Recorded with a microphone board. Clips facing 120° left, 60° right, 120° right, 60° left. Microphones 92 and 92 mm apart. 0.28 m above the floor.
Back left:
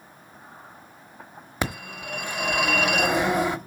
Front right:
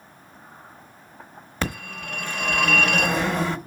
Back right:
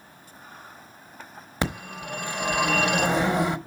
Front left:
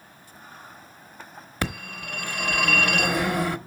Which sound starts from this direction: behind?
A phone ringing, at 1.6 s.